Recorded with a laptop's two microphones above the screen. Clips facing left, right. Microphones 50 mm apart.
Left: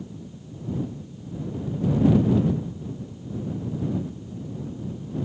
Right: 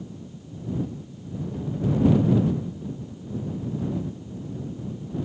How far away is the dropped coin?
I don't hear a dropped coin.